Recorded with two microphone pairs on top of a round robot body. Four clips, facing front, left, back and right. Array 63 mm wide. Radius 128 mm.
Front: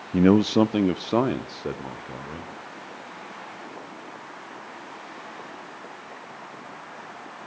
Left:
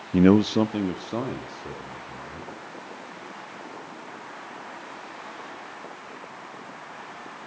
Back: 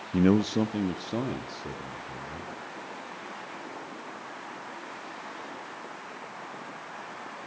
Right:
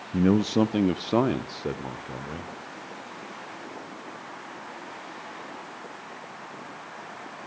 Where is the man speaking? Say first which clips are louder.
Left 4 dB, front 5 dB; 60° left, 0.8 m; by 2.5 s 50° right, 3 m.